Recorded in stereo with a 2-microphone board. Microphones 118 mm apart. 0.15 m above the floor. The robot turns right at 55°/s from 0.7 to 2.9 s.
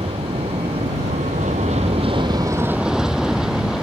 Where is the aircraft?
125° right; by 3.9 s 5° right.